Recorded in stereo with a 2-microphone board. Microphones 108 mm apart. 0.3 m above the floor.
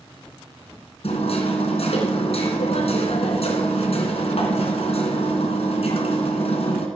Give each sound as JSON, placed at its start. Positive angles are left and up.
{"t": 1.0, "sound": "hammering", "side_deg": 70, "distance_m": 3.0}